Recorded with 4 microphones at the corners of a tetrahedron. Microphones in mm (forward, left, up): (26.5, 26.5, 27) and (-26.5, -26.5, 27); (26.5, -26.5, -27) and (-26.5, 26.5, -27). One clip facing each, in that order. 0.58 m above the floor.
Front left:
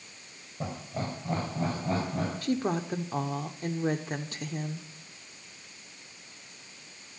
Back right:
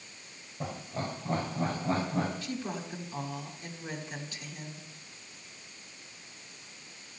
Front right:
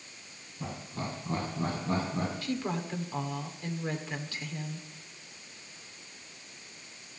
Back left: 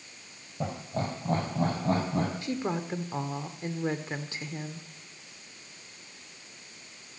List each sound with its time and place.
0.6 s laughter: 125° left, 3 m; by 2.3 s 140° left, 4 m
2.4 s a woman speaking: 75° left, 1.2 m